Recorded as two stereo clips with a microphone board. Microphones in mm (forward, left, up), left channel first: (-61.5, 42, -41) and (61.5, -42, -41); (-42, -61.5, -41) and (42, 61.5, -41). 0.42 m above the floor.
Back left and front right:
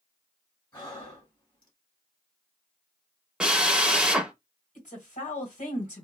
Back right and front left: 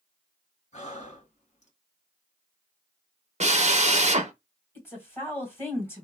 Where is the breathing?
160° right, 1.6 m.